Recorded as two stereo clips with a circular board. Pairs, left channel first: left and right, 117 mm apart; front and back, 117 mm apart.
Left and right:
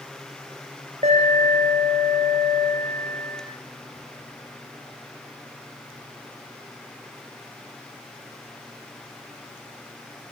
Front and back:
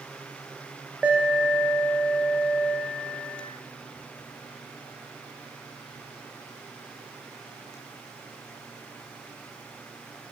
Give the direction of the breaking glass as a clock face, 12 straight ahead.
I don't hear breaking glass.